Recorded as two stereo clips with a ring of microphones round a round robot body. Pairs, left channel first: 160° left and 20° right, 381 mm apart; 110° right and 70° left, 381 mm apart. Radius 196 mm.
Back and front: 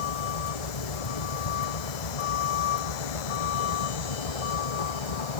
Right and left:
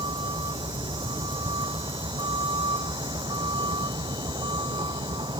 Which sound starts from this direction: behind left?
A vehicle, at 0.0 s.